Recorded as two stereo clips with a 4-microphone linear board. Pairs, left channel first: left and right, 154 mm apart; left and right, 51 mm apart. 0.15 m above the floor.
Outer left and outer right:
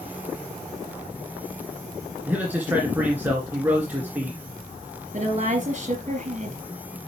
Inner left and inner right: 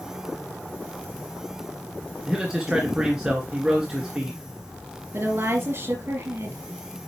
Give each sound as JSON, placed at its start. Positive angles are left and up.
{"t": 2.2, "sound": "a man speaking", "side_deg": -10, "distance_m": 2.0}
{"t": 5.1, "sound": "a woman speaking", "side_deg": -50, "distance_m": 3.5}